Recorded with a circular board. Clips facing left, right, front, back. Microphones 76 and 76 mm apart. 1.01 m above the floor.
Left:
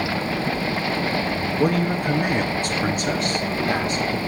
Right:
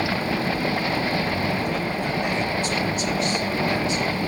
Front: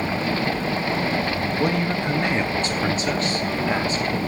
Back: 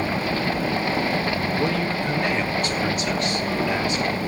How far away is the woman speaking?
About 1.4 m.